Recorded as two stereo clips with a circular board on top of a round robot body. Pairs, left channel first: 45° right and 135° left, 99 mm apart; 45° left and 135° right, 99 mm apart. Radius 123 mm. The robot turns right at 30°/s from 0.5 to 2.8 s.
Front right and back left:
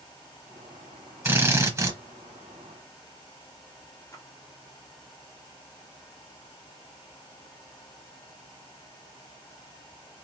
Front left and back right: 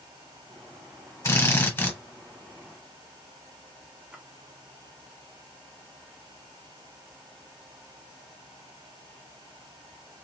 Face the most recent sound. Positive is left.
turn(degrees=-65)